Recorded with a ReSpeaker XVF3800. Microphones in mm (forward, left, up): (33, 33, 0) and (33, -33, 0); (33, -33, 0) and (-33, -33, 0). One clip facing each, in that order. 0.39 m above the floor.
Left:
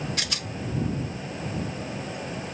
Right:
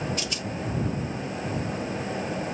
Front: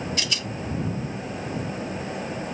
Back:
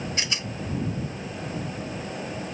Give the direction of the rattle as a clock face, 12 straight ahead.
8 o'clock.